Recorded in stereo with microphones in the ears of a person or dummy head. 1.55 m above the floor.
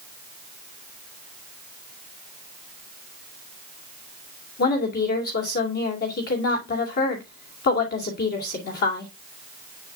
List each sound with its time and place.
4.6 s a woman speaking: 60° left (ahead or behind), 2.5 m